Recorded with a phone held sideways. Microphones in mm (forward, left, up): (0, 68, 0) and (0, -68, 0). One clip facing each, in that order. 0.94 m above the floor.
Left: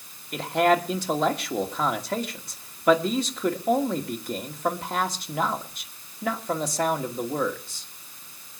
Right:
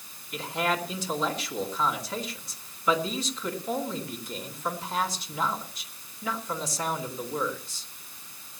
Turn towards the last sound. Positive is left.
turn(degrees=60)  # may be behind; listen again after turning